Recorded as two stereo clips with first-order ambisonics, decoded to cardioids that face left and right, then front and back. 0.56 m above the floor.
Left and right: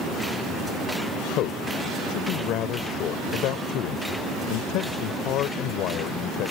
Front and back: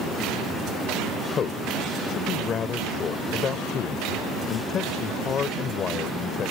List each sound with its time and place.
1.4 s a man speaking: 60° left